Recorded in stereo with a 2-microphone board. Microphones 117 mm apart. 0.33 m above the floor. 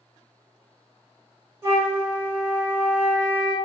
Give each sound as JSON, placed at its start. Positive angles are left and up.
{"t": 1.6, "sound": "a flute", "side_deg": -20, "distance_m": 1.4}